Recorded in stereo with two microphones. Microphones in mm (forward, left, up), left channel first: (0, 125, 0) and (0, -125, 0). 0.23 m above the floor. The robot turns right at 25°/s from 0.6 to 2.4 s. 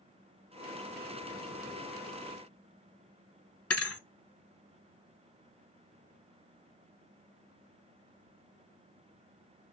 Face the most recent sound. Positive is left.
turn(degrees=65)  # may be behind; listen again after turning